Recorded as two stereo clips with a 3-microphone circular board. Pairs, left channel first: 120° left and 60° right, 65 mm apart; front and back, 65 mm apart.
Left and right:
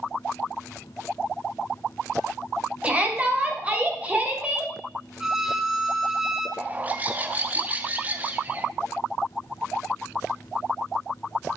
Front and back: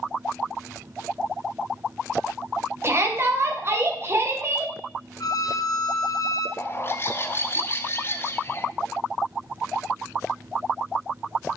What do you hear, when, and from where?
2.8 s a shout: 125° right, 1.5 m
5.2 s a violin: 25° left, 0.6 m
6.6 s a bird: 10° right, 0.6 m